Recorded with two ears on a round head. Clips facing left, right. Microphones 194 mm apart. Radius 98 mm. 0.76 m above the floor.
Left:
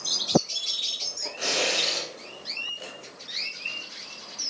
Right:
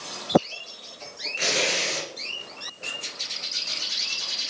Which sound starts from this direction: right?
Tearing paper, at 1.4 s.